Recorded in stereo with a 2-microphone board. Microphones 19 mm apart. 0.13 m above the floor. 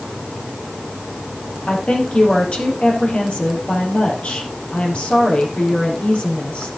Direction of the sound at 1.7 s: 60° left (ahead or behind).